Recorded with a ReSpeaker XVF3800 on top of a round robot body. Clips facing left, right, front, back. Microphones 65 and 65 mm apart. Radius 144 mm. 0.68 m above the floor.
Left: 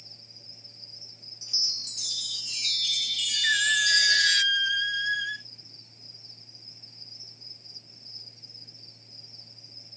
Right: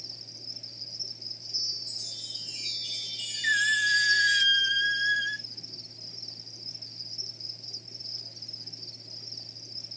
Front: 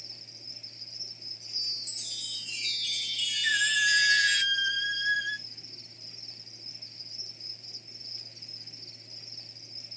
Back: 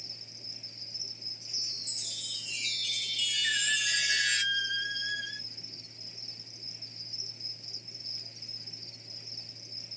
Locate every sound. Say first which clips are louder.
0.0 s an insect: right 5 dB, back 1 dB; 90° right, 0.8 m
1.4 s a chime: left 5 dB, front 3 dB; 90° left, 0.5 m
3.4 s a squeak: even, front 7 dB; 5° right, 0.8 m